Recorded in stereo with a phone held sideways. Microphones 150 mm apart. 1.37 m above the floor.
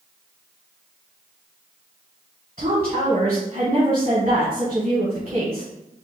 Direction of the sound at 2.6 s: 45° right (ahead or behind).